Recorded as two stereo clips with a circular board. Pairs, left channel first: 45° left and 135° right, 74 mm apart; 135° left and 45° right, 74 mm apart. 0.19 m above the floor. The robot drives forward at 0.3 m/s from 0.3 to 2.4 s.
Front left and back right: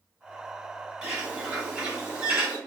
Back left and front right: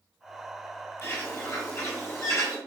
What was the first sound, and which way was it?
A bird, 150° left.